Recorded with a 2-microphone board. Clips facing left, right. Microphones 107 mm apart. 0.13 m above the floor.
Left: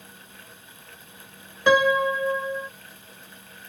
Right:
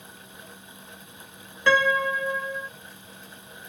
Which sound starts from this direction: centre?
A piano, at 1.7 s.